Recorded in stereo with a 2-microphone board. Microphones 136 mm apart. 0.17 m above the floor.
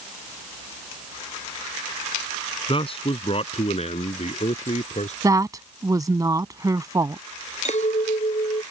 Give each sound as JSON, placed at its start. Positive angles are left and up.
{"t": 2.7, "sound": "a man speaking", "side_deg": 45}
{"t": 5.2, "sound": "a woman speaking", "side_deg": -25}
{"t": 7.7, "sound": "a clink", "side_deg": 60}